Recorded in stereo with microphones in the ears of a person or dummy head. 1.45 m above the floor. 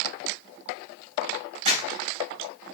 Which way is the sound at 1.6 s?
35° right (ahead or behind).